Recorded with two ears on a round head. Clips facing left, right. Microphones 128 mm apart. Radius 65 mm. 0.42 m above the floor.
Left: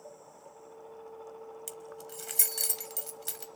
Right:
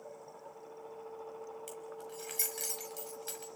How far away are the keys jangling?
About 1.6 m.